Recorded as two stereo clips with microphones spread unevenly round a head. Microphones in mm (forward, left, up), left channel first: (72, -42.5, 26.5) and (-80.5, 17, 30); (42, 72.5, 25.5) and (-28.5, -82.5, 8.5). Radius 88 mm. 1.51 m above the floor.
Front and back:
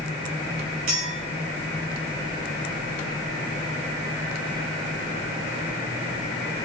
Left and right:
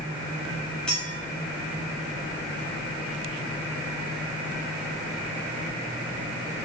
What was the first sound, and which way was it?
A clink, 150° left.